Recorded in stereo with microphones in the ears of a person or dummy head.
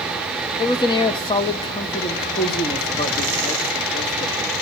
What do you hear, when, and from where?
0.6 s a man speaking: 25° left (ahead or behind), 0.6 m